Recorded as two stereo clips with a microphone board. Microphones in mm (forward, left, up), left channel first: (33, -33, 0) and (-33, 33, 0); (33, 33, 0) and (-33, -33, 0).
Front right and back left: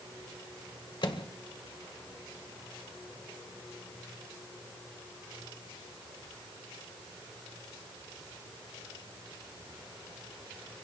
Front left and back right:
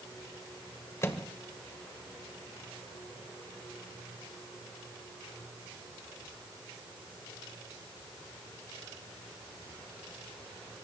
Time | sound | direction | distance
1.0 | a microwave | 15° right | 1.9 m